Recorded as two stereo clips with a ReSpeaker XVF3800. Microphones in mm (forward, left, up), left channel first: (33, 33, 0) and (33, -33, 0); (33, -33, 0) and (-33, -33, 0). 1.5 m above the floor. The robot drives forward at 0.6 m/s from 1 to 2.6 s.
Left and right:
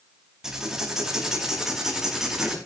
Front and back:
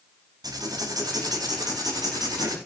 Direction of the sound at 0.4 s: 170° right.